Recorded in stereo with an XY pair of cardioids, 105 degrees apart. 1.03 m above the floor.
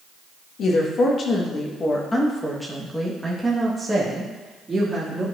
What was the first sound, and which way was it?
A woman speaking, 65° left.